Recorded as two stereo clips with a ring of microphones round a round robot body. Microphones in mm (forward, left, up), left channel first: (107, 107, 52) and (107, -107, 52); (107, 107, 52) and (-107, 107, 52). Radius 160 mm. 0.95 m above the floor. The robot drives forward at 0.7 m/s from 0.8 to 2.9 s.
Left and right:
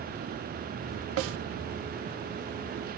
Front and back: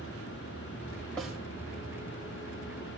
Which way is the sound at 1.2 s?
85° right.